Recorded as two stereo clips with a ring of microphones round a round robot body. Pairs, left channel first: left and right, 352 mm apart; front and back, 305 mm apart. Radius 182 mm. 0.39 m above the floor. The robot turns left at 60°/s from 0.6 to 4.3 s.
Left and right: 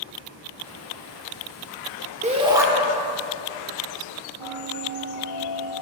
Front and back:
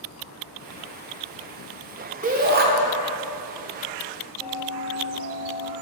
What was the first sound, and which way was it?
A shout, 140° right.